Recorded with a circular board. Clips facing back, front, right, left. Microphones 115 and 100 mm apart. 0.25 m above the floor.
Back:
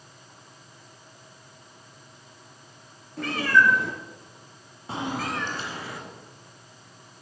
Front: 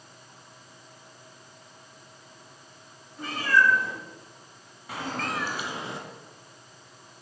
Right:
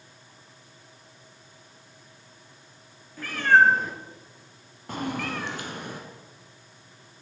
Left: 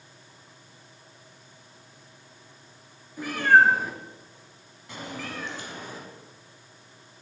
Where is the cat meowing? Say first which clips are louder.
Back 2 dB, even; 165° left, 2 m; by 6.0 s 65° right, 1.5 m.